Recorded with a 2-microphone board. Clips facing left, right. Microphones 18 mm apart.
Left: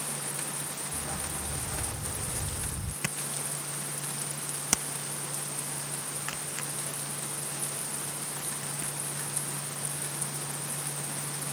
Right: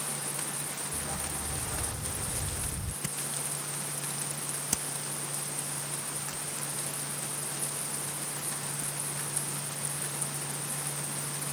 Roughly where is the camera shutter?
Left.